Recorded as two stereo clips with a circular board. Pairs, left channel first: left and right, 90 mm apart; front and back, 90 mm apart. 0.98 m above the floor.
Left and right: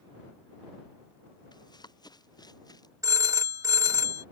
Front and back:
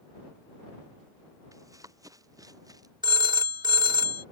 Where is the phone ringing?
145° right.